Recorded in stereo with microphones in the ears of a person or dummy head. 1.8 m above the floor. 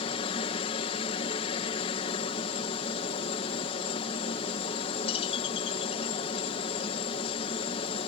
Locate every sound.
0.0 s a helicopter: 35° left (ahead or behind)